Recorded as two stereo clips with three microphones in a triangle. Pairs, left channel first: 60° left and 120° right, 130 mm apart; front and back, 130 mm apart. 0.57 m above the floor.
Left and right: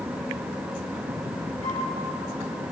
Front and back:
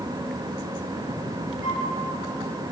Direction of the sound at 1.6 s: 15° left.